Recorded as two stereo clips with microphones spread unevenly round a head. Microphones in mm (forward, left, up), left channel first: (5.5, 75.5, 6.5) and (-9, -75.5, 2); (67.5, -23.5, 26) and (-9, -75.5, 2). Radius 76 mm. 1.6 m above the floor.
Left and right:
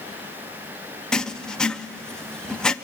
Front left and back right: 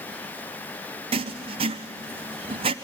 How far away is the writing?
About 0.6 m.